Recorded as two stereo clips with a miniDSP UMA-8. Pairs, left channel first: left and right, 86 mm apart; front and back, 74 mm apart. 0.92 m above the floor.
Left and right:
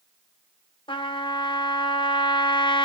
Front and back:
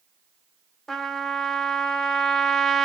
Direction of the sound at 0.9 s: 85° left.